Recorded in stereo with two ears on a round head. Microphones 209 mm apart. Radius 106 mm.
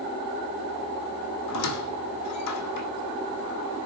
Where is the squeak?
75° left (ahead or behind), 2.5 m.